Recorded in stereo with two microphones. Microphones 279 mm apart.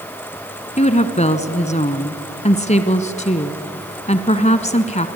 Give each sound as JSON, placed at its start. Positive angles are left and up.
{"t": 0.8, "sound": "a woman speaking", "side_deg": 25, "distance_m": 1.3}